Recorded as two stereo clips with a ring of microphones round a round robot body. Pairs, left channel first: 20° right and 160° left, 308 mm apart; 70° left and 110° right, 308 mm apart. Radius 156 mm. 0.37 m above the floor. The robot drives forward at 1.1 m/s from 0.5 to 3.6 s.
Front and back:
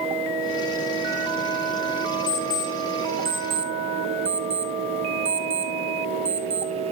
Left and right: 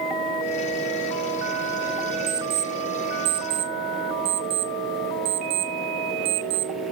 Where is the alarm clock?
40° right, 1.2 m; by 6.7 s 135° right, 1.1 m.